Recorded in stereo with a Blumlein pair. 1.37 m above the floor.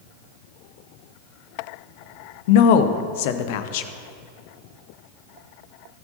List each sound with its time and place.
2.5 s a woman speaking: 50° left, 0.7 m